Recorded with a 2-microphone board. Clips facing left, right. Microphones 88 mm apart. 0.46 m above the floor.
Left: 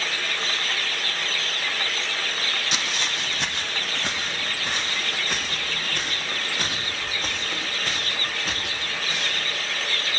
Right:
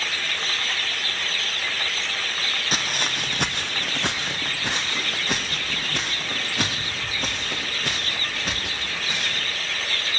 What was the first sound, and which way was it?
Footsteps, 50° right (ahead or behind).